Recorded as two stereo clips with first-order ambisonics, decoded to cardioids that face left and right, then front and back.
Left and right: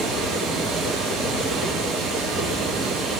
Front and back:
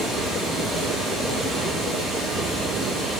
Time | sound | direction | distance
0.0 | running water | 105° right | 3 m